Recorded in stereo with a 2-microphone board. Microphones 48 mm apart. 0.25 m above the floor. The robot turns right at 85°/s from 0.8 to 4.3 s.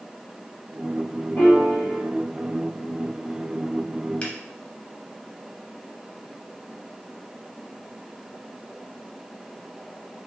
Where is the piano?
55° left, 1.9 m; by 2.0 s 110° left, 1.9 m.